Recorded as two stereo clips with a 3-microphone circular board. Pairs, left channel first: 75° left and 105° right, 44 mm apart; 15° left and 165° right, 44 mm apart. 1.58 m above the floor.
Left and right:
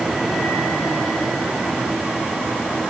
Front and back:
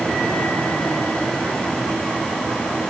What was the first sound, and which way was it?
Only background noise.